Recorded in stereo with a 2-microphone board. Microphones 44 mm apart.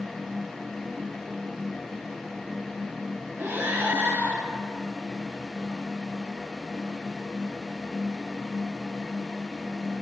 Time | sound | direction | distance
3.4 | breathing | 65° right (ahead or behind) | 2.0 m